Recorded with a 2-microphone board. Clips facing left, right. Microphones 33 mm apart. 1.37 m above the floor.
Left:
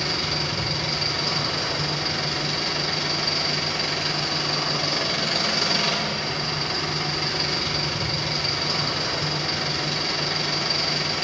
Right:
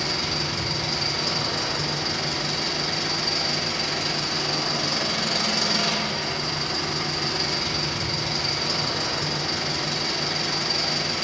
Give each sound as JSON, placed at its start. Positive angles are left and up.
{"t": 0.0, "sound": "an engine running", "side_deg": 20, "distance_m": 4.5}